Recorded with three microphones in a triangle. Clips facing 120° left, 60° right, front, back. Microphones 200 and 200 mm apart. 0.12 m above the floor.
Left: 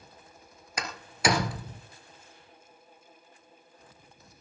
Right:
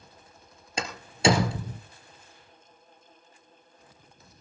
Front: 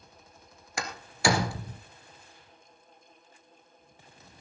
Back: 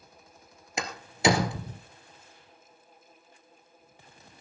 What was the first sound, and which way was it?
A door slam, 115° right.